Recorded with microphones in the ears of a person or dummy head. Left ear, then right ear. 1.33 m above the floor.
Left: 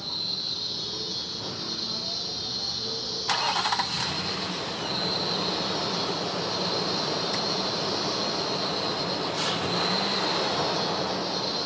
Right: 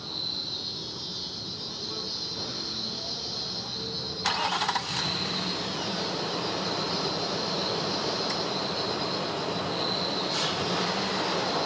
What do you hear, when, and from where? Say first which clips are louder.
0.0 s an insect: left 2 dB; 60° left (ahead or behind), 8.5 m